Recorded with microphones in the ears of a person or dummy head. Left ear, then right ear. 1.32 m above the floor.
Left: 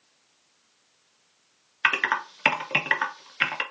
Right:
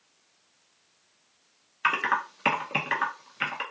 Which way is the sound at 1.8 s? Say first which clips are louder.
Left 2 dB; 15° left (ahead or behind).